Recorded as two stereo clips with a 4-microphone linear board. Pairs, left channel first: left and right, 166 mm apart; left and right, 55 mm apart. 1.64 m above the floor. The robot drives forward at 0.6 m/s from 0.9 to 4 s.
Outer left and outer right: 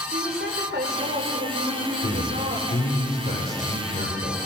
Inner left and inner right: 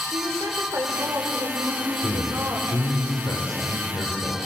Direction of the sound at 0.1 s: 75° right (ahead or behind).